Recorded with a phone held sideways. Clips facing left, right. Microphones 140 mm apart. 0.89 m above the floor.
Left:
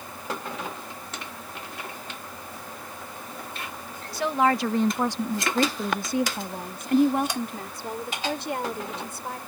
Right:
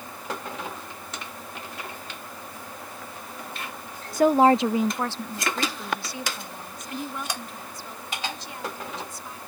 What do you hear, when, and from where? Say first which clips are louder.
4.1 s a woman speaking: right 6 dB; 45° right (ahead or behind); by 9.4 s 65° left (ahead or behind)